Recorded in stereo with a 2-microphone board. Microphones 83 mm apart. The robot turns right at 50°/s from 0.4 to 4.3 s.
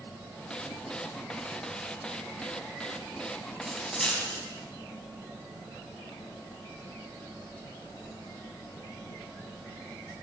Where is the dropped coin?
10° right (ahead or behind), 4 m; by 4.4 s 20° left (ahead or behind), 4 m.